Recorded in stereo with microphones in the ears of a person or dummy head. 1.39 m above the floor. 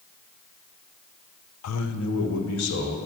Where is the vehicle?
I don't hear a vehicle.